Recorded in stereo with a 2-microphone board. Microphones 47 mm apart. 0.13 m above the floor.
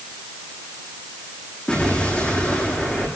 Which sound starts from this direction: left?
An explosion, at 1.7 s.